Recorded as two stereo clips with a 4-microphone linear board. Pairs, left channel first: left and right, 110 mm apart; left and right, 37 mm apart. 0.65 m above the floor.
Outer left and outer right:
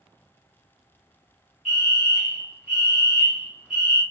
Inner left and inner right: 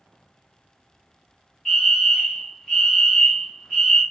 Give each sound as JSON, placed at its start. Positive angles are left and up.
{"t": 1.6, "sound": "a fire alarm", "side_deg": -5, "distance_m": 1.5}